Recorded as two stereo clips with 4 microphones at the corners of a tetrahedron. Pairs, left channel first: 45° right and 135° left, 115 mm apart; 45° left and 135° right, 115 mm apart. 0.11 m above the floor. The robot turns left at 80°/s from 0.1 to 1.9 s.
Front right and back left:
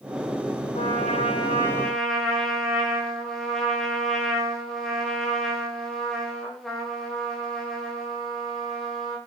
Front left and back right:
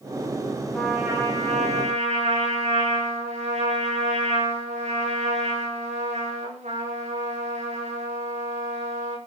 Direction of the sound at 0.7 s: 40° right.